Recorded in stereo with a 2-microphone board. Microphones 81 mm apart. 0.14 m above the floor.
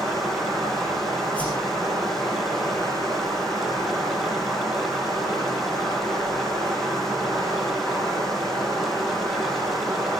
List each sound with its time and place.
0.0 s running water: 5° left (ahead or behind), 5.5 m
1.4 s a whoosh: 15° left (ahead or behind), 7 m